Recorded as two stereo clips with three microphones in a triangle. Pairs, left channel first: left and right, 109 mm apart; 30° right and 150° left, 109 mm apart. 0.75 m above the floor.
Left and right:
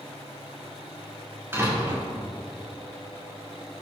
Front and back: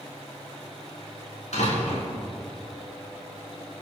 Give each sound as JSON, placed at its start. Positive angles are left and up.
{"t": 1.5, "sound": "a door slam", "azimuth_deg": -20, "distance_m": 6.0}